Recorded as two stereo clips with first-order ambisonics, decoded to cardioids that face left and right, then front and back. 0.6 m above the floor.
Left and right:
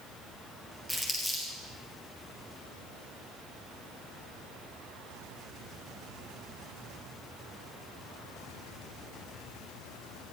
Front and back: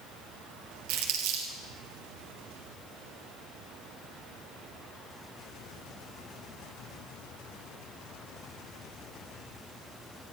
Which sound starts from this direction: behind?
Crumpling, at 0.9 s.